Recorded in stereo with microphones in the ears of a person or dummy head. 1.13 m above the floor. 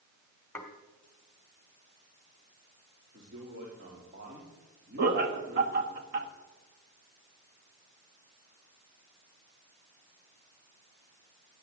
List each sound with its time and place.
0.6 s dishes clattering: 5° left (ahead or behind), 1.6 m
3.1 s a man speaking: 55° right (ahead or behind), 3 m
5.0 s laughter: 60° right (ahead or behind), 1.6 m